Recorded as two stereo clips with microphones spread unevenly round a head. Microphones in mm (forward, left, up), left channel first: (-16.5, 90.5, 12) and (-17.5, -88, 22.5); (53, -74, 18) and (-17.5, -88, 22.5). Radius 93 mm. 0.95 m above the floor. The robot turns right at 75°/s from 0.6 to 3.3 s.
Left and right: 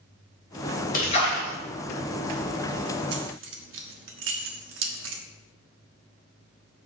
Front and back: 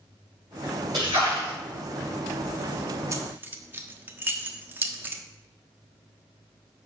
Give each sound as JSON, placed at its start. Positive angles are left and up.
{"t": 0.9, "sound": "a splash", "azimuth_deg": 135, "distance_m": 3.0}
{"t": 3.1, "sound": "keys jangling", "azimuth_deg": -120, "distance_m": 1.2}